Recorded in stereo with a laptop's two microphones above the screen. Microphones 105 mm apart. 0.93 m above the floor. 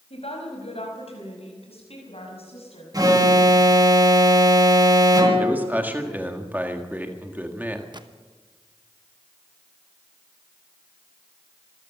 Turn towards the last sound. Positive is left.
turn(degrees=-45)  # may be behind; listen again after turning